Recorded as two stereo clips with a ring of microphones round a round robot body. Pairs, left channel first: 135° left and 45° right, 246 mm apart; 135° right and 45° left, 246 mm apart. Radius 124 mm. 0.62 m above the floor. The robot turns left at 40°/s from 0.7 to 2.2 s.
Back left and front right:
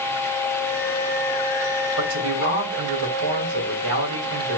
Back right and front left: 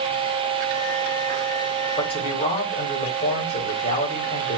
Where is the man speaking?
60° right, 3.5 m; by 4.6 s 70° right, 3.5 m.